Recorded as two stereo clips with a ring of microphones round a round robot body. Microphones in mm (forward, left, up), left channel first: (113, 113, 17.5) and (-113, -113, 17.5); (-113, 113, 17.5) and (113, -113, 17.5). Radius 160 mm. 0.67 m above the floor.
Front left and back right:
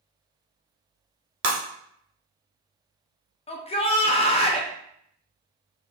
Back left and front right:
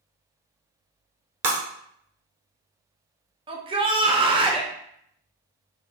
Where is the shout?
5° left, 0.5 m.